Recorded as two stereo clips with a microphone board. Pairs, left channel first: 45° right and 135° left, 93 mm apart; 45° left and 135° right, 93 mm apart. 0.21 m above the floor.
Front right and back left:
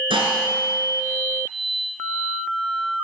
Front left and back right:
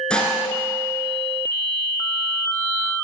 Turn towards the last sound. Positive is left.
turn(degrees=125)